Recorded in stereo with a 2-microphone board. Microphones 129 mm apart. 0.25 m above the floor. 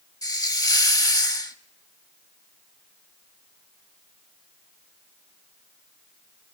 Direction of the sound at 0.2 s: 30° left (ahead or behind).